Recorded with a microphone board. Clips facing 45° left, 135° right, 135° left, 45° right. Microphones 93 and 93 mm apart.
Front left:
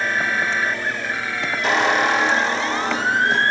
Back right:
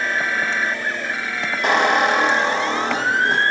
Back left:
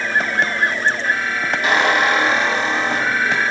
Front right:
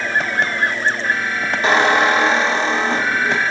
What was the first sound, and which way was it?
A squeak, 110° right.